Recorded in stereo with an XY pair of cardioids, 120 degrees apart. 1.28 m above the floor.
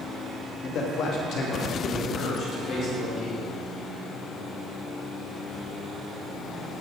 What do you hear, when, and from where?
0.6 s a man speaking: 55° left, 2.0 m; by 3.5 s 50° left, 3.5 m